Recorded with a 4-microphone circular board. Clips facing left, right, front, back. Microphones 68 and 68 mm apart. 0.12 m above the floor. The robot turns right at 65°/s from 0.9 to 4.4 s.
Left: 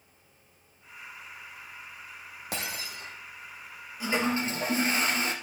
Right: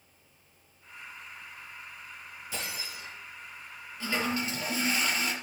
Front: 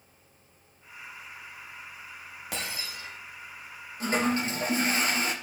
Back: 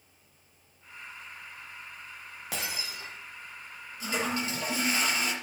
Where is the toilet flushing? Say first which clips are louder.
Left 3 dB, front 4 dB; 15° left, 3 m; by 5.3 s 40° left, 3 m.